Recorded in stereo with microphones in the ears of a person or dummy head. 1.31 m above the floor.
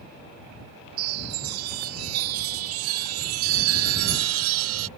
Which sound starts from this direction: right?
A chime, at 1.0 s.